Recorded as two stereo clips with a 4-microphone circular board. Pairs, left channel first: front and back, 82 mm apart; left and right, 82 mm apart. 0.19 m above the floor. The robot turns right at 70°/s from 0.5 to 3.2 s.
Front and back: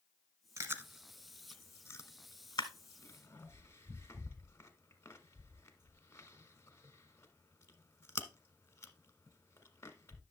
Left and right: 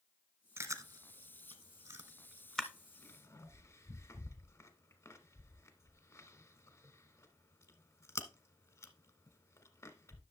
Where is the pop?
No pop in this recording.